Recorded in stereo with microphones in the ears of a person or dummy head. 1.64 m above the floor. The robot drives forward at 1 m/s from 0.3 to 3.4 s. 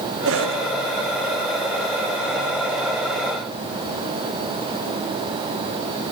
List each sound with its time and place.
0.2 s a cough: 75° right (ahead or behind), 1.8 m; by 0.6 s 65° right (ahead or behind), 1.9 m